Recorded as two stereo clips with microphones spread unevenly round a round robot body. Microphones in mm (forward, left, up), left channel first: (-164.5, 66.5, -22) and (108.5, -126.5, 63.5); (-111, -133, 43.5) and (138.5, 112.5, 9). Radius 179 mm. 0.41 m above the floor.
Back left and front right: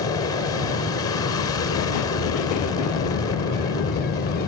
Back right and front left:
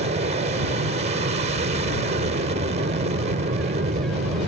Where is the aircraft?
95° left.